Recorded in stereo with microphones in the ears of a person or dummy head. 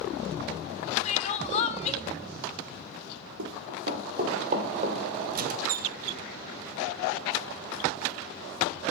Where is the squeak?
50° right (ahead or behind), 0.7 m.